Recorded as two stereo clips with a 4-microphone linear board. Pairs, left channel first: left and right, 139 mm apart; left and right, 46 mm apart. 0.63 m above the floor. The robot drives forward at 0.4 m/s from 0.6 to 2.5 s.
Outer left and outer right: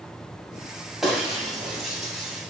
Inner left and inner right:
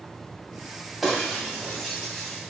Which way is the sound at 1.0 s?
Centre (ahead or behind).